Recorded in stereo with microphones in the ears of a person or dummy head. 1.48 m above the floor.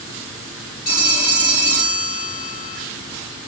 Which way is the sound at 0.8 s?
30° left (ahead or behind).